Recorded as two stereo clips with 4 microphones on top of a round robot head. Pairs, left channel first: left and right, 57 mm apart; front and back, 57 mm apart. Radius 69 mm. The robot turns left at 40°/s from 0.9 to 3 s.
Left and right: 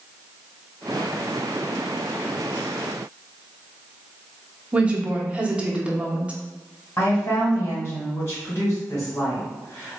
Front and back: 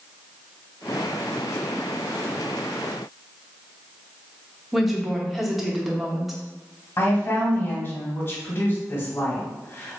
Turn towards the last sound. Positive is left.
turn(degrees=45)